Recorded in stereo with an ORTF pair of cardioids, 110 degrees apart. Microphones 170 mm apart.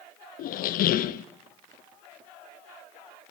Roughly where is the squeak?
Ahead left.